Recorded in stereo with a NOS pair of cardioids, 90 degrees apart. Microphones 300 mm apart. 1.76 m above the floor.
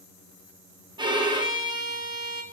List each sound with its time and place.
1.0 s a violin: 15° right, 0.8 m